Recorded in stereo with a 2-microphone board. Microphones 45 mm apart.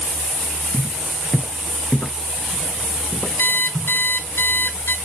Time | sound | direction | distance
0.7 | footsteps | 10° left (ahead or behind) | 1.4 m
3.4 | an alarm clock | 60° left (ahead or behind) | 0.9 m